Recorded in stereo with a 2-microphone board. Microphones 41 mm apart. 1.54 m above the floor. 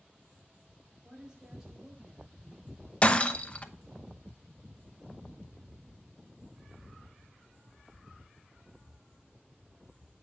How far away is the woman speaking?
About 4.5 m.